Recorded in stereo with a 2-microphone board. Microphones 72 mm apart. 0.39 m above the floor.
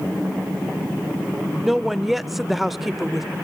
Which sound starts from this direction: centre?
A woman speaking, at 1.6 s.